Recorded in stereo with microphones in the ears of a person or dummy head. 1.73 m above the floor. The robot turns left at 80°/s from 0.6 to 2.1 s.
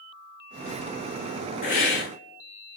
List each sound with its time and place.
1.6 s a hiss: 125° left, 0.9 m; by 2.8 s 90° left, 0.9 m